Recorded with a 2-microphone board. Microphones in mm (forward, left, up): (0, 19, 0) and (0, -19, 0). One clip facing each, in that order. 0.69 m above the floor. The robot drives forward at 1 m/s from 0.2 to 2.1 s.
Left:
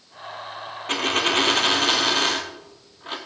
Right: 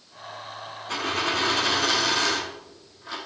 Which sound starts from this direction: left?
A dropped coin, at 0.9 s.